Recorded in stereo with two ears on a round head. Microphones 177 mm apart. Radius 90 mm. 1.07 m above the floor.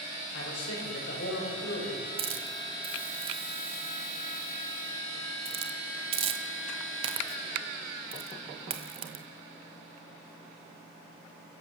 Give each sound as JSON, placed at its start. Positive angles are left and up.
{"t": 0.3, "sound": "a man speaking", "side_deg": 65, "distance_m": 6.5}
{"t": 2.2, "sound": "a hiss", "side_deg": -30, "distance_m": 1.7}